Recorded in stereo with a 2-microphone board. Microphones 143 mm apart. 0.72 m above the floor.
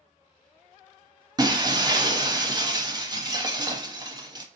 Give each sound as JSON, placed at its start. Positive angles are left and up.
{"t": 1.4, "sound": "breaking glass", "side_deg": -30, "distance_m": 0.6}